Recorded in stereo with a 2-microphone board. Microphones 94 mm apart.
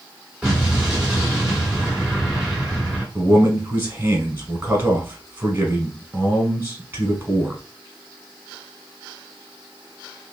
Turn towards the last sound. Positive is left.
turn(degrees=-25)  # may be behind; listen again after turning